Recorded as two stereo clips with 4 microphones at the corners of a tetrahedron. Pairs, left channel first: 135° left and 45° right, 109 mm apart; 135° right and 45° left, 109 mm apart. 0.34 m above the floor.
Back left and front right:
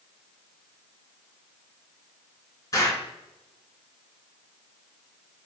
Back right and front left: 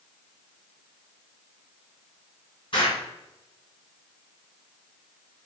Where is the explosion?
170° right, 3 m.